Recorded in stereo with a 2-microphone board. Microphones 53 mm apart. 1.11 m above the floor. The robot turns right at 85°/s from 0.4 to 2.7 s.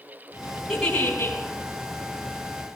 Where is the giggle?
Straight ahead, 5 m; by 1.4 s 60° left, 5 m.